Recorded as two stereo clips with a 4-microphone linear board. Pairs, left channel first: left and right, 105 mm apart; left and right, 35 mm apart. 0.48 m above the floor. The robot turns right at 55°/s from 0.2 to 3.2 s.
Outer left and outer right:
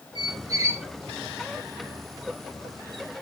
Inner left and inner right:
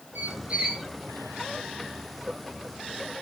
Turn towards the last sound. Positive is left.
turn(degrees=110)